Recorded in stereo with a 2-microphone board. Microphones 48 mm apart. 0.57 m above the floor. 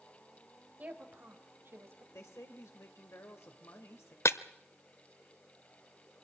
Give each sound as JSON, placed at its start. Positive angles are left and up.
{"t": 0.8, "sound": "a woman speaking", "side_deg": -35, "distance_m": 3.0}
{"t": 2.1, "sound": "a woman speaking", "side_deg": 70, "distance_m": 2.0}
{"t": 4.2, "sound": "breaking glass", "side_deg": 70, "distance_m": 0.7}